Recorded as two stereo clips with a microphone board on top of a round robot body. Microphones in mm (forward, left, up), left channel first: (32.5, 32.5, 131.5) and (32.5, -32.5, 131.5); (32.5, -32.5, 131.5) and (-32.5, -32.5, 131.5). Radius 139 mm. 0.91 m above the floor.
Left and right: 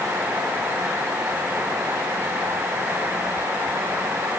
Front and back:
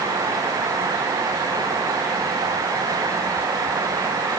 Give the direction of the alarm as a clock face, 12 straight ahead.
I don't hear an alarm.